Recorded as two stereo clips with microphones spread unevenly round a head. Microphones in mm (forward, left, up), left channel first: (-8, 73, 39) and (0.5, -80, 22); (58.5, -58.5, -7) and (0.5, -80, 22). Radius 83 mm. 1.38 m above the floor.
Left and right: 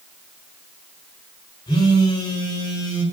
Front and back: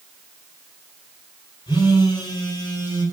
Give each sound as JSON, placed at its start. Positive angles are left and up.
{"t": 1.7, "sound": "a phone buzzing", "azimuth_deg": 30, "distance_m": 4.0}